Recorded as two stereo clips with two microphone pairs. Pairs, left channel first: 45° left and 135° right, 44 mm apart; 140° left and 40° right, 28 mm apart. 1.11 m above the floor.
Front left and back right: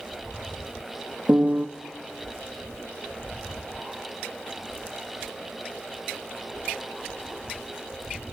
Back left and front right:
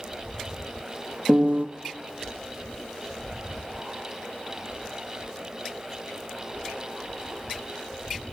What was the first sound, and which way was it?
A piano, 75° right.